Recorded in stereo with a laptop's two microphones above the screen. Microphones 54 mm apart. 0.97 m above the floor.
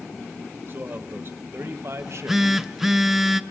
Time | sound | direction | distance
0.7 | a man speaking | 40° right (ahead or behind) | 1.9 m
2.0 | a phone buzzing | 5° right (ahead or behind) | 0.5 m